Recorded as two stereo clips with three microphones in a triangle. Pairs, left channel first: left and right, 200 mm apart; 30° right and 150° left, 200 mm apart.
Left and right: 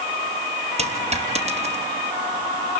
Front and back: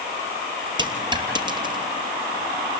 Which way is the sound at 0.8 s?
145° right.